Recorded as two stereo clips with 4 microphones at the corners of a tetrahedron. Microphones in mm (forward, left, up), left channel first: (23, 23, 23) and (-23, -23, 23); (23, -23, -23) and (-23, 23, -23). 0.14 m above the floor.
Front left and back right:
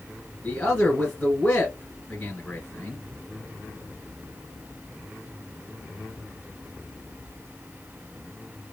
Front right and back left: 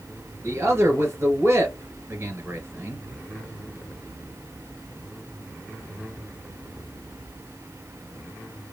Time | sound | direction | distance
0.4 | a man speaking | 110° left | 1.7 m